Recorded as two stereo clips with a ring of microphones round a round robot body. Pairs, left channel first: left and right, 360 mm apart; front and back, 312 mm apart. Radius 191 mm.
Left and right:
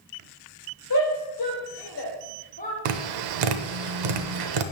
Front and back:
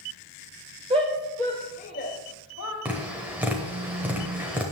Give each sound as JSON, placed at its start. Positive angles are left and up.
{"t": 0.9, "sound": "a shout", "azimuth_deg": 115, "distance_m": 1.5}
{"t": 2.9, "sound": "tapping", "azimuth_deg": -95, "distance_m": 0.9}